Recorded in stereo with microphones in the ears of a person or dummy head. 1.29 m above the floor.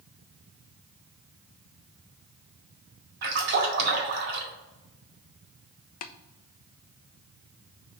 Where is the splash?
55° right (ahead or behind), 1.9 m.